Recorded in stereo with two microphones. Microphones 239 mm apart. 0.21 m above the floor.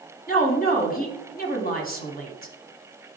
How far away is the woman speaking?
About 1.4 m.